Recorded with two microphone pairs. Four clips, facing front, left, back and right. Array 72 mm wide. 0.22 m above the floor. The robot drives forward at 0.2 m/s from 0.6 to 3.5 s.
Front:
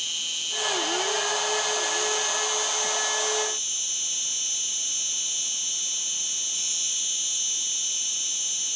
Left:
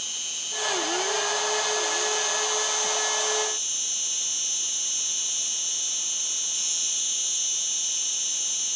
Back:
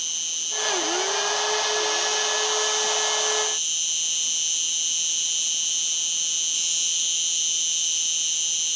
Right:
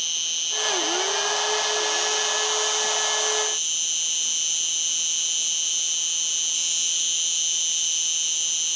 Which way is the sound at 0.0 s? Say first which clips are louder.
Right 6 dB, front 2 dB; 65° right.